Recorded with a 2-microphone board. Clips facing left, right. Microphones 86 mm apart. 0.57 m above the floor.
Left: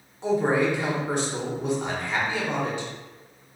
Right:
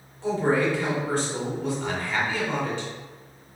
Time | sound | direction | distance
0.2 | a man speaking | 20° left (ahead or behind) | 1.1 m